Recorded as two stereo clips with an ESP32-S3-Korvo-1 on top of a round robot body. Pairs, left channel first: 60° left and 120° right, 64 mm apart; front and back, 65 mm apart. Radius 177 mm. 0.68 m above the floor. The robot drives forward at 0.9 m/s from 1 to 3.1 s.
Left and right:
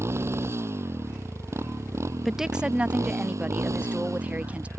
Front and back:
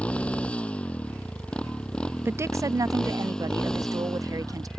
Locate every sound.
0.0 s a motorcycle: 70° right; by 4.8 s 80° right
2.2 s a woman speaking: 150° left; by 4.7 s 170° left